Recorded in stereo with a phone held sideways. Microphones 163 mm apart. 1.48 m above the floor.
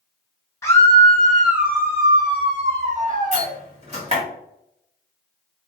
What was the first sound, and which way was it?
A scream, 15° left (ahead or behind).